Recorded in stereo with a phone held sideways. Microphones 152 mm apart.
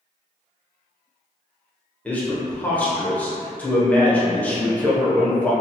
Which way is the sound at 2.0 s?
10° left (ahead or behind).